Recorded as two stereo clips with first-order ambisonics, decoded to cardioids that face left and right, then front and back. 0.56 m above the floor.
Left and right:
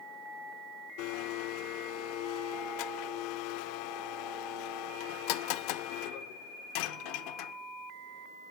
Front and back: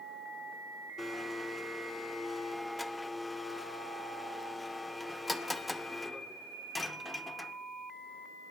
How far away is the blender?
About 0.6 m.